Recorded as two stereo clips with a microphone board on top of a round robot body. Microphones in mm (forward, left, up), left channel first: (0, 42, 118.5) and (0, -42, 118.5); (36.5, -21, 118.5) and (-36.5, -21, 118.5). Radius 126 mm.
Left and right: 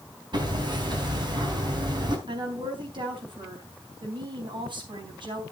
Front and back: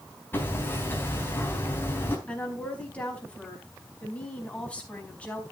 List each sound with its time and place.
0.3 s hammering: 60° right, 3.5 m
2.3 s a woman speaking: 70° right, 4.5 m